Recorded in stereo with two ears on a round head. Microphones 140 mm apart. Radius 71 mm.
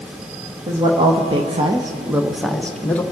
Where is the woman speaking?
30° right (ahead or behind), 1.5 m; by 3.0 s 10° left (ahead or behind), 1.3 m.